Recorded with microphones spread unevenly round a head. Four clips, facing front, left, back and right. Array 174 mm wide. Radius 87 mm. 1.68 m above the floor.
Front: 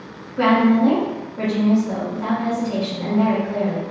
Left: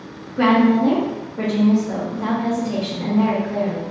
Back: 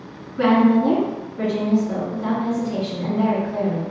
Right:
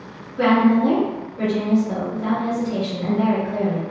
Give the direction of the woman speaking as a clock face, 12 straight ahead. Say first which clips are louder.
Left 1 dB, even; 10 o'clock.